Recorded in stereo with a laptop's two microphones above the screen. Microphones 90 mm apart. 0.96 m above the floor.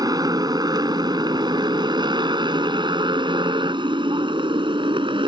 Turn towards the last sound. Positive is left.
turn(degrees=-80)